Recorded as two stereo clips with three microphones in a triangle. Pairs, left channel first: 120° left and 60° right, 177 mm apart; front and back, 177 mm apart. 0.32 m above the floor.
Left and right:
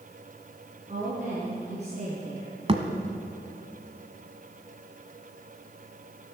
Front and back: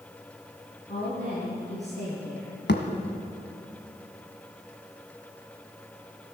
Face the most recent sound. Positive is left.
turn(degrees=-5)